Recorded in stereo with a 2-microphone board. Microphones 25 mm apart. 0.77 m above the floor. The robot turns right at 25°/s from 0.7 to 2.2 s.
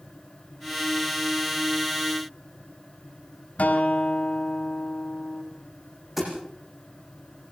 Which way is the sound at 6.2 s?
10° right (ahead or behind).